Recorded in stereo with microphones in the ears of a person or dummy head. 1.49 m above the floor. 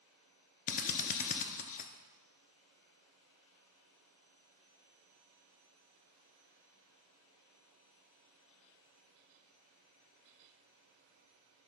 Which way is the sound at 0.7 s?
40° left (ahead or behind).